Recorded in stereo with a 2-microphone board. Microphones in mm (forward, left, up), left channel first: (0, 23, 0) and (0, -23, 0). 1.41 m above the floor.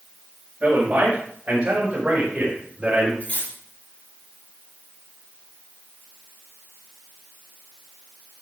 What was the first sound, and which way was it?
A man speaking, 35° right (ahead or behind).